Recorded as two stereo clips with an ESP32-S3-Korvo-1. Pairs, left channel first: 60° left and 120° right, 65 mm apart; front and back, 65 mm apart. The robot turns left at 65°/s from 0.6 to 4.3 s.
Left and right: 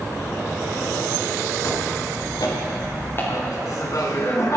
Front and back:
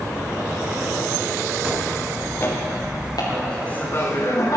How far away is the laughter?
About 3.5 m.